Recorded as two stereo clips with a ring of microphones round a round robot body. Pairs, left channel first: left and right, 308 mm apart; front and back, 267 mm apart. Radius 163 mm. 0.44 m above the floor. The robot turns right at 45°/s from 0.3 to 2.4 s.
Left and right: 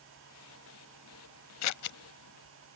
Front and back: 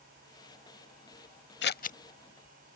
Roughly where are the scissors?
Ahead left.